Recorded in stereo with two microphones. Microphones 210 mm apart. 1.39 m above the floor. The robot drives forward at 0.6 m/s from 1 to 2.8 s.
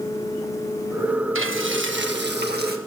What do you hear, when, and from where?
1.4 s frying: 75° right (ahead or behind), 1.4 m; by 2.8 s 50° right (ahead or behind), 1.8 m